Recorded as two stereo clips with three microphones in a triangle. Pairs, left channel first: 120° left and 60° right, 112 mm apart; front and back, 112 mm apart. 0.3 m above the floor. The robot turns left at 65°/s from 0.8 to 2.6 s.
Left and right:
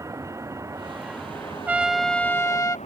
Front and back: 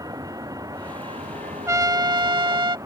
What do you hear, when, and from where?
0.0 s a vehicle: 125° right; by 2.9 s 120° left
1.7 s a trumpet: 130° right; by 2.8 s 170° left